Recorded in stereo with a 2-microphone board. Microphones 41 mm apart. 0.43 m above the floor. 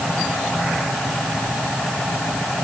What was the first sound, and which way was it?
Only background noise.